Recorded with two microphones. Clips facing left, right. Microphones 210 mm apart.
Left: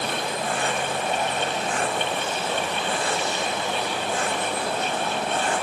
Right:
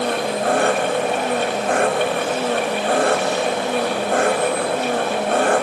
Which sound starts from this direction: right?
An engine running, at 0.0 s.